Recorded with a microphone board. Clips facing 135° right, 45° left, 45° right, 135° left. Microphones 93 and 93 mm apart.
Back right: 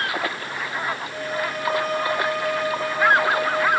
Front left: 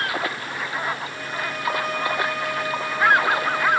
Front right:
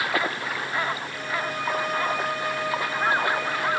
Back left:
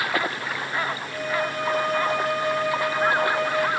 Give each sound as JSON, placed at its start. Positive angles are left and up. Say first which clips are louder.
{"t": 1.1, "sound": "a violin", "louder": "back right 3 dB, back left 3 dB", "azimuth_deg": 175, "distance_m": 6.5}